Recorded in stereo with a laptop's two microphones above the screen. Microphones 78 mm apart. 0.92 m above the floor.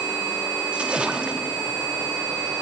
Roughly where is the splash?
Centre.